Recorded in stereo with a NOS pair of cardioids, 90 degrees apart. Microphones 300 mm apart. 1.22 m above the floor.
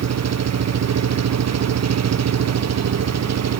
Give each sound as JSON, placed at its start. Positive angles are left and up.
{"t": 0.0, "sound": "an engine running", "azimuth_deg": -60}